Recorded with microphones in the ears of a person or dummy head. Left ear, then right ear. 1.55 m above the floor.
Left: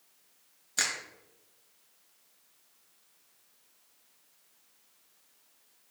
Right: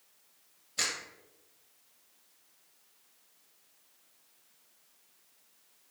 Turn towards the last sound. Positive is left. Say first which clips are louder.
# left 2 dB
turn(degrees=55)  # may be behind; listen again after turning